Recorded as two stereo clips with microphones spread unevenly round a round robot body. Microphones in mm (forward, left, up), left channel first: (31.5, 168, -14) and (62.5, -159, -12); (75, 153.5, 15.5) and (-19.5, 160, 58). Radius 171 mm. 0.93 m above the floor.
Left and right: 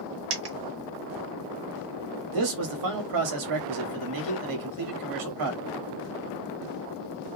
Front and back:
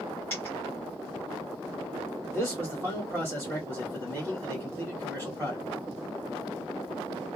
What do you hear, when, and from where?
0.3 s a dropped coin: 105° right, 0.8 m
2.3 s a man speaking: 100° right, 1.2 m